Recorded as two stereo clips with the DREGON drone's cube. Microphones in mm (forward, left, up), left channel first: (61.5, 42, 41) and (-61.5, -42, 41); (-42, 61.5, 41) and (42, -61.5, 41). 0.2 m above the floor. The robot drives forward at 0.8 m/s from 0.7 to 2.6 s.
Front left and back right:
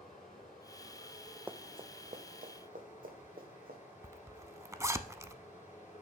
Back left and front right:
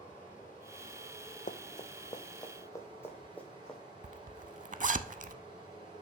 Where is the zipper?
75° right, 0.5 m.